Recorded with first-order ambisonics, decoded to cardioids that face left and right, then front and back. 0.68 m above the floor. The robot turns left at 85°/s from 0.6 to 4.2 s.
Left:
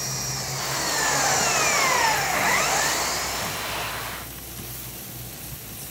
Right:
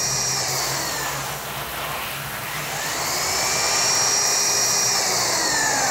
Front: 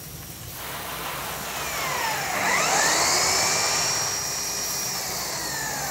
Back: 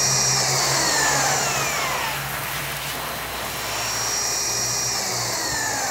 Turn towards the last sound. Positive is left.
turn(degrees=-105)